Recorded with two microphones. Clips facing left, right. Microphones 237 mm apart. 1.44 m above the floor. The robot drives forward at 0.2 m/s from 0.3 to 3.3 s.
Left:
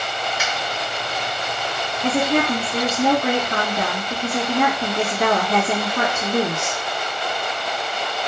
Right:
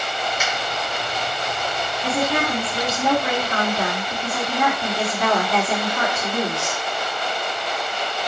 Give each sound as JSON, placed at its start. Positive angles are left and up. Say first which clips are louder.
{"t": 0.4, "sound": "a finger snap", "louder": "right 1 dB", "side_deg": 80, "distance_m": 1.8}
{"t": 2.0, "sound": "a woman speaking", "louder": "left 4 dB", "side_deg": 55, "distance_m": 1.2}